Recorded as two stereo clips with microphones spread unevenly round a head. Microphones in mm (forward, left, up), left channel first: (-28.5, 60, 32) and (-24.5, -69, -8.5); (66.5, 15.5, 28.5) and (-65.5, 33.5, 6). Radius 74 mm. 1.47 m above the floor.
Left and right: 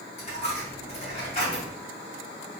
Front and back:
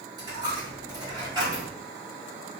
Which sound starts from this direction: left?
A dropped coin, at 0.2 s.